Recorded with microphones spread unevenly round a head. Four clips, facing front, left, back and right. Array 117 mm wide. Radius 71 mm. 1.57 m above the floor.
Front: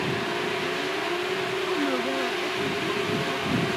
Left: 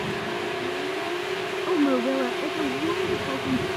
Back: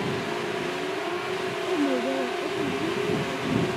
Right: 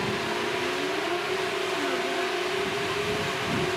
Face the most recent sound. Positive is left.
turn(degrees=125)